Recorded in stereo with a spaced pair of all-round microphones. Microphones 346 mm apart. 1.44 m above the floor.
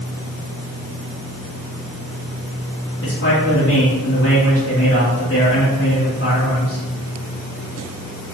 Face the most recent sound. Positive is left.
turn(degrees=40)  # may be behind; listen again after turning